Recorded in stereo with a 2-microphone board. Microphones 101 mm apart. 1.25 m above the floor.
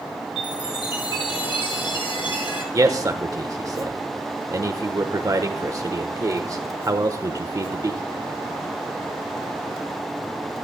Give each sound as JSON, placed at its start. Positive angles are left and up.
{"t": 0.4, "sound": "a chime", "side_deg": 55, "distance_m": 3.0}
{"t": 2.7, "sound": "a man speaking", "side_deg": -35, "distance_m": 1.1}